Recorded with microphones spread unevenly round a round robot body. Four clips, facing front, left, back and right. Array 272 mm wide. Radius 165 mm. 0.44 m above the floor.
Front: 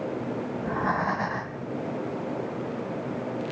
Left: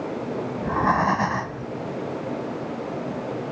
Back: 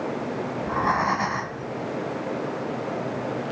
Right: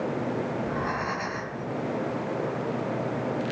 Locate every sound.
0.6 s breathing: 100° left, 1.1 m